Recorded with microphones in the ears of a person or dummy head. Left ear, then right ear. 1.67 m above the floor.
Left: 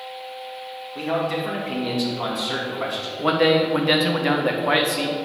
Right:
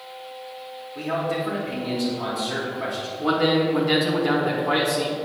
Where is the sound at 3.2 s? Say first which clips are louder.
Left 3 dB; 40° left (ahead or behind), 1.0 m.